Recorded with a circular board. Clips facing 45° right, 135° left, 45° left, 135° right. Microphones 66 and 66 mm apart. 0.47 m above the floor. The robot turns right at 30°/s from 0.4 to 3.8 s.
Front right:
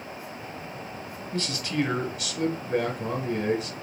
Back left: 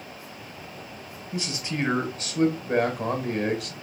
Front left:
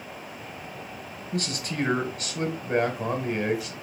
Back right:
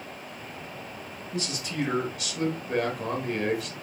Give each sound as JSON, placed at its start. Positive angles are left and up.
{"t": 1.3, "sound": "a man speaking", "azimuth_deg": 60, "distance_m": 1.3}